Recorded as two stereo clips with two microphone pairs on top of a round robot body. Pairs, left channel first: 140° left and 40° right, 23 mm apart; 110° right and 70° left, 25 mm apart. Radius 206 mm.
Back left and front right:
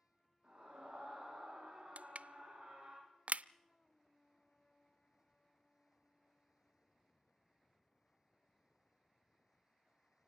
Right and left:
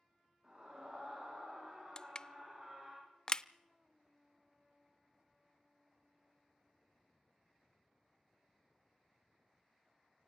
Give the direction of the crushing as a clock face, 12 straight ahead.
2 o'clock.